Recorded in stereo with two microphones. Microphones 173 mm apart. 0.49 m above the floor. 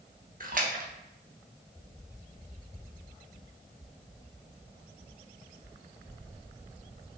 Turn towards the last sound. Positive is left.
turn(degrees=-55)  # may be behind; listen again after turning